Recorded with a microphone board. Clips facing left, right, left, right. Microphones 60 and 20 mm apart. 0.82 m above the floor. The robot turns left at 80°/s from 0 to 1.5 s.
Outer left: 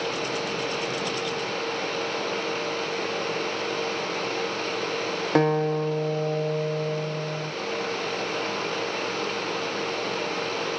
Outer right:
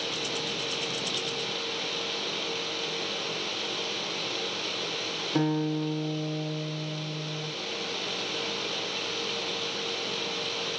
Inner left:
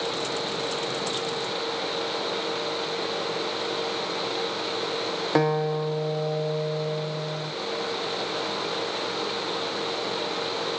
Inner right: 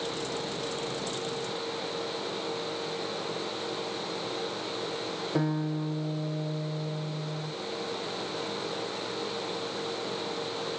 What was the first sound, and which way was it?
A guitar, 60° left (ahead or behind).